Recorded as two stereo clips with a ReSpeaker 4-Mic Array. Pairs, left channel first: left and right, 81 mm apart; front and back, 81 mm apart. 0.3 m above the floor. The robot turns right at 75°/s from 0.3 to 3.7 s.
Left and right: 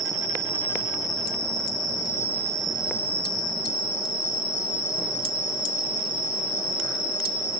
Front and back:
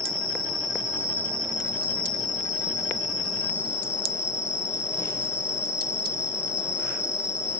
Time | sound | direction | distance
0.0 | an insect | straight ahead | 6 m